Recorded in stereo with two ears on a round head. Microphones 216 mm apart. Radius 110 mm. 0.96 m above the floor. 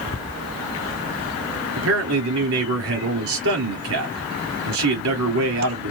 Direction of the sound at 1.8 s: 65° right (ahead or behind).